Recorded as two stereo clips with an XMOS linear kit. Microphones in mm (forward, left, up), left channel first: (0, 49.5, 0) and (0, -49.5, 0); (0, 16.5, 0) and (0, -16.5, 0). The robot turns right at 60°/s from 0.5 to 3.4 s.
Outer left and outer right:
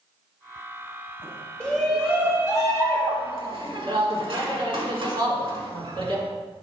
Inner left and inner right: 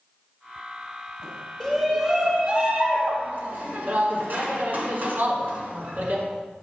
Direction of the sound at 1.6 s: 15° left (ahead or behind).